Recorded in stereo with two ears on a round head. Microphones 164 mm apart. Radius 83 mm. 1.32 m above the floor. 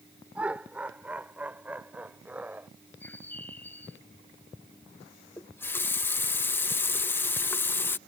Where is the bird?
10° left (ahead or behind).